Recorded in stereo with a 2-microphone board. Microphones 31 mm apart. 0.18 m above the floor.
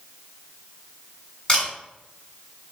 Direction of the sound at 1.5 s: 20° left (ahead or behind).